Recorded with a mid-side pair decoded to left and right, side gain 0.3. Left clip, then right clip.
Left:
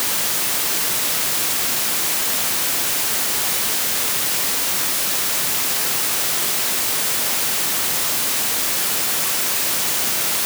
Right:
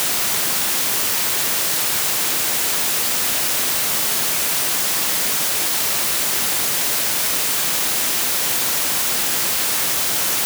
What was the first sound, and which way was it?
Only background noise.